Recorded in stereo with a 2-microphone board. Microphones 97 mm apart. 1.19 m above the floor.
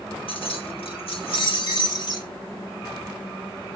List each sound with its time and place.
0.3 s keys jangling: 70° left (ahead or behind), 1.0 m; by 2.3 s 50° left (ahead or behind), 3 m